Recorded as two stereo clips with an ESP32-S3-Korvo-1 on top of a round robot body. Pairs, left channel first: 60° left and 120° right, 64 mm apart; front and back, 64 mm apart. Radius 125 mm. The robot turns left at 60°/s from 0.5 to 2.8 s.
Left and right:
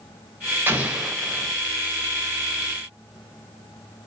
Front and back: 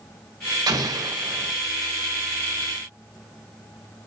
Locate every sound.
0.7 s an explosion: straight behind, 3.5 m; by 1.5 s 130° left, 3.5 m